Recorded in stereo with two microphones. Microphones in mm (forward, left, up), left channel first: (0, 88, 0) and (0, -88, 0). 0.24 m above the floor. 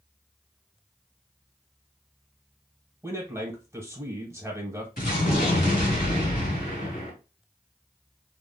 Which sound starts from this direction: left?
An explosion, at 5.0 s.